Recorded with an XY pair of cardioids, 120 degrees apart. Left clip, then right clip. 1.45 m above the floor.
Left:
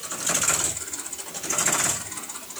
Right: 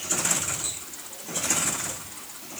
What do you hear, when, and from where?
Only background noise.